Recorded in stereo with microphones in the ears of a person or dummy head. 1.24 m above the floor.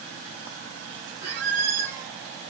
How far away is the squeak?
About 4 m.